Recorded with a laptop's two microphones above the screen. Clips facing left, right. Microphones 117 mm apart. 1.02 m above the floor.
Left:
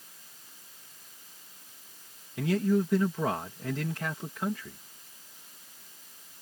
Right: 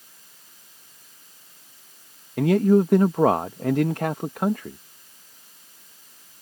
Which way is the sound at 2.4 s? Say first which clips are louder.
Right 9 dB; 65° right (ahead or behind).